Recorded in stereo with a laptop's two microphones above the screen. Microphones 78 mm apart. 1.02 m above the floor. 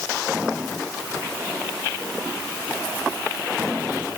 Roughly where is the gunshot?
I don't hear a gunshot.